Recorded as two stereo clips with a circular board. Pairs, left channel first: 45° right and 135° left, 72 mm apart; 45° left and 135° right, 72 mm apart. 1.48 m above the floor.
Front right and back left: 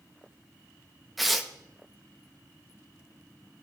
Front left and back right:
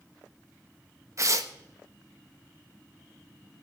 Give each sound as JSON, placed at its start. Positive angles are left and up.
{"t": 1.2, "sound": "tearing paper", "azimuth_deg": -135, "distance_m": 0.9}